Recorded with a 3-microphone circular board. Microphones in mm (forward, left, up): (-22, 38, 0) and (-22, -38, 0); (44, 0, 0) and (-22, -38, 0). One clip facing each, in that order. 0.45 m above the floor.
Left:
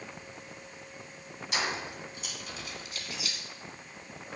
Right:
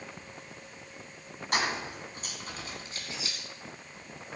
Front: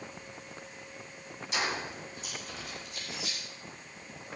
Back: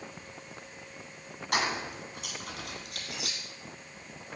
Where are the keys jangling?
125° right, 2 m; by 3.4 s 145° right, 3 m.